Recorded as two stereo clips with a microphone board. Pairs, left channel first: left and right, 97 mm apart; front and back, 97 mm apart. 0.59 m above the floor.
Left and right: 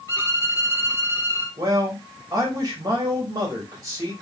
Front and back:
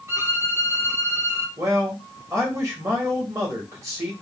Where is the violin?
130° left, 1.3 m.